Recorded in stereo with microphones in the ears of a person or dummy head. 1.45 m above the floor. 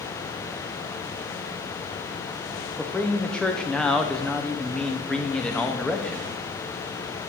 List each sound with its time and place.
2.8 s a man speaking: 5° left (ahead or behind), 0.5 m